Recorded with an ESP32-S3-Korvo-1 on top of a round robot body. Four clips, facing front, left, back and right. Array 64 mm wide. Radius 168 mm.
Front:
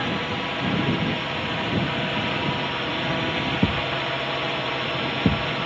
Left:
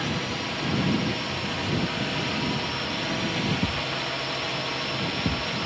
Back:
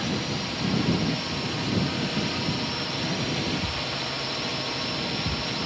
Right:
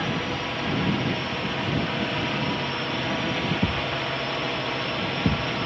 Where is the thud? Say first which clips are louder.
Right 2 dB, front 7 dB; 10° right.